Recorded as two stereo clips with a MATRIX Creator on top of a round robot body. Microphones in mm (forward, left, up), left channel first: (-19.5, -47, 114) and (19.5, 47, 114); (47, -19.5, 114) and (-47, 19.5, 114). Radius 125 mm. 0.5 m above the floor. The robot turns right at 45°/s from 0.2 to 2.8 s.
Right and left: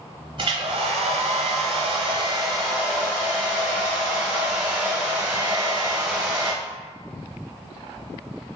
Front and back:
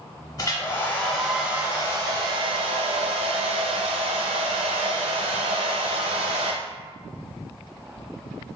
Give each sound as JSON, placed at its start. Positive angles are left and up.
{"t": 0.4, "sound": "a hair dryer", "azimuth_deg": 30, "distance_m": 0.8}